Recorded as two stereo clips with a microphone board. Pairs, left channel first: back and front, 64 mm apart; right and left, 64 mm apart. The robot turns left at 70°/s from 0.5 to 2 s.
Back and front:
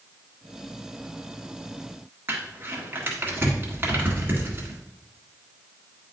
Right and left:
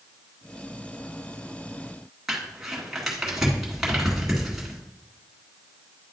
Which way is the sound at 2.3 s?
10° left.